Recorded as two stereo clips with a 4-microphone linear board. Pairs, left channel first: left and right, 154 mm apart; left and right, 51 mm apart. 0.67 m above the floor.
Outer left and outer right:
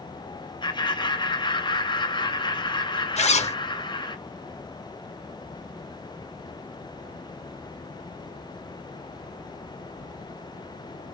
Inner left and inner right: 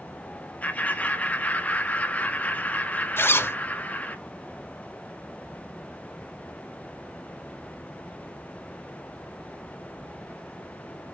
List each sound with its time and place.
0.6 s laughter: 30° left (ahead or behind), 0.9 m
3.2 s a zipper: 50° left (ahead or behind), 0.5 m